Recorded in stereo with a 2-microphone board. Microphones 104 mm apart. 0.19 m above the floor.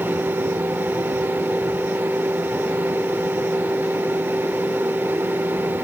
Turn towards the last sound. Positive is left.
No sound to turn to.